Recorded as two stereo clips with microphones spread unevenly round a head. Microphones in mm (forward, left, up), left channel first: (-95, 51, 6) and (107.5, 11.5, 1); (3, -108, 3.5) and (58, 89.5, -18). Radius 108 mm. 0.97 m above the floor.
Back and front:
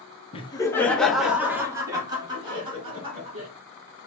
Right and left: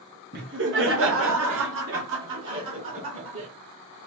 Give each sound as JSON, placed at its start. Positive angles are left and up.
{"t": 0.3, "sound": "laughter", "azimuth_deg": 105, "distance_m": 0.7}